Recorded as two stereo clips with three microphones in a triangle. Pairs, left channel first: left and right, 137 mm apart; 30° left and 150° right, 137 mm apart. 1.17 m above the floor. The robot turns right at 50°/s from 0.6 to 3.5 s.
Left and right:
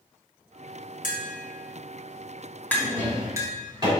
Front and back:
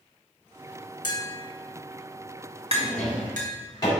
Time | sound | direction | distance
1.0 | tapping | 85° left | 1.7 m
2.7 | a drawer | 70° right | 3 m